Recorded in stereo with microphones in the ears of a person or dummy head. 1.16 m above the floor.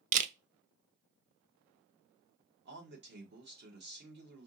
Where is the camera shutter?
35° right (ahead or behind), 0.5 m.